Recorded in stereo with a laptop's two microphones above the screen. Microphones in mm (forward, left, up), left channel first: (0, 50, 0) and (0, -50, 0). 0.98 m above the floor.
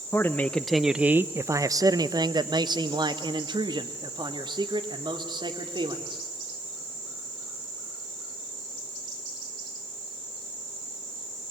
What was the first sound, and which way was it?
A man speaking, 25° left (ahead or behind).